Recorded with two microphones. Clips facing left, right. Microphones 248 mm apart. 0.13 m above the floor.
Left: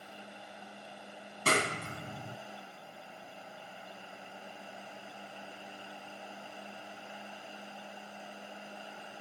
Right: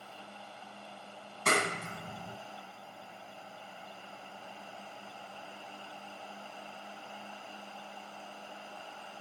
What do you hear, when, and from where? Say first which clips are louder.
1.4 s a clap: even; 30° left (ahead or behind), 1.8 m